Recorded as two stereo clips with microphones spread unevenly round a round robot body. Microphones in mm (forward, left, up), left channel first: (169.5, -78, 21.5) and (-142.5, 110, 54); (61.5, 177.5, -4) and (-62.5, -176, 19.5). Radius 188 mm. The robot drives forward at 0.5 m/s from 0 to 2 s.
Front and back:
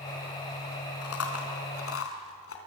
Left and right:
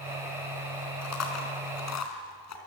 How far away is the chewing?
About 4 m.